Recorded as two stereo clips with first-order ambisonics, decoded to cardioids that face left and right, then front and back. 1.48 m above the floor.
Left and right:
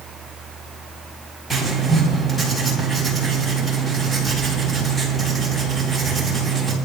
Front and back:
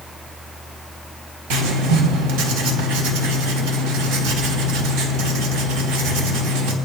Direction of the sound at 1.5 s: 175° left.